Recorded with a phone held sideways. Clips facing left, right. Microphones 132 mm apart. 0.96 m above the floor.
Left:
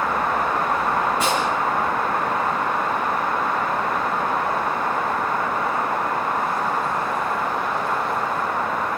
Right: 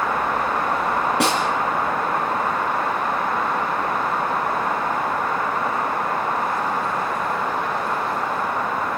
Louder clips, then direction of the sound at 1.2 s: Right 1 dB; 75° right (ahead or behind).